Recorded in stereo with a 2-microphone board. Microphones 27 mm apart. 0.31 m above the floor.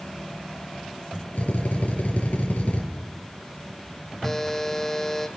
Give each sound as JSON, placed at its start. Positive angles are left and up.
{"t": 1.4, "sound": "a drill", "side_deg": 65, "distance_m": 5.0}
{"t": 4.2, "sound": "a buzzer", "side_deg": 10, "distance_m": 1.3}